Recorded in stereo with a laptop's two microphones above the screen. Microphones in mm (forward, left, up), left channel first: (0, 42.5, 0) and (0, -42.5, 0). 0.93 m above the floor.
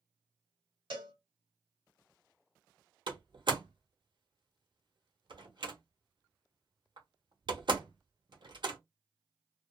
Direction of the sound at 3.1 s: 65° right (ahead or behind).